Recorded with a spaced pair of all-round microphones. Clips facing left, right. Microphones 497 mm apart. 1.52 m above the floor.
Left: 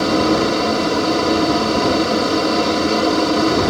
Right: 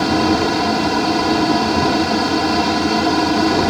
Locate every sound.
0.0 s a fan: 10° right (ahead or behind)